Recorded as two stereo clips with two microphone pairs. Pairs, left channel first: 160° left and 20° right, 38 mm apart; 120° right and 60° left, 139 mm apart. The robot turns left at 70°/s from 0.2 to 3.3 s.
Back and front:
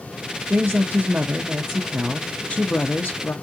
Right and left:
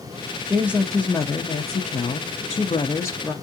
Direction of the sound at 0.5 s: 10° right.